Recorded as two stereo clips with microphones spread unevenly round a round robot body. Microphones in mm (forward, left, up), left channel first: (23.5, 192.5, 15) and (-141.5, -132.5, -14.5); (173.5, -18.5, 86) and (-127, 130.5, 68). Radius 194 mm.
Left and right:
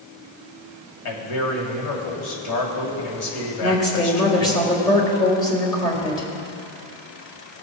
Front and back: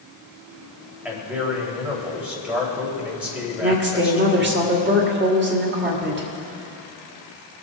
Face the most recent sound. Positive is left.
turn(degrees=145)